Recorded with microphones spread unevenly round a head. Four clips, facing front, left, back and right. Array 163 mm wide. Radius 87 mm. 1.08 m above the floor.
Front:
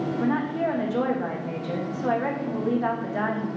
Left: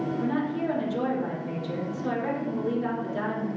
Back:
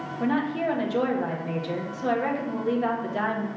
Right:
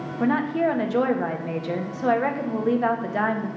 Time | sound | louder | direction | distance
0.2 | a woman speaking | right 9 dB, back 2 dB | 85° right | 1.7 m